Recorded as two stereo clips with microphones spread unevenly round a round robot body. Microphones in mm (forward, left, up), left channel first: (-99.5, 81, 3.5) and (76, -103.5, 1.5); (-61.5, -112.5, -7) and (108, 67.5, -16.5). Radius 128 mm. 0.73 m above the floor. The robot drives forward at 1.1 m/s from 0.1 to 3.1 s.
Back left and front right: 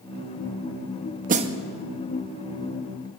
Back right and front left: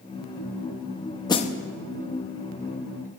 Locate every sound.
1.3 s a snare drum: 65° right, 0.6 m; by 1.6 s 120° right, 0.6 m